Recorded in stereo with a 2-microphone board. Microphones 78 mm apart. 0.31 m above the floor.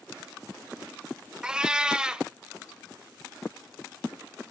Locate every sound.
1.4 s a cat meowing: 10° right (ahead or behind), 0.5 m